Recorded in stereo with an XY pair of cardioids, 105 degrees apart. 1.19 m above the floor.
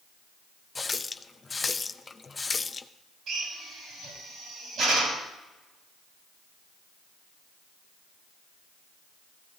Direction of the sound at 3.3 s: 65° right.